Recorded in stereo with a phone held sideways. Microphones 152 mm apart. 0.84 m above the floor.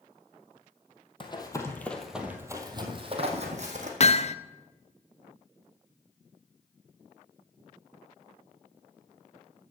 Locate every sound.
1.2 s running footsteps: 35° left (ahead or behind), 1.9 m; by 3.9 s 55° right (ahead or behind), 3 m
4.0 s hammering: 45° left (ahead or behind), 0.5 m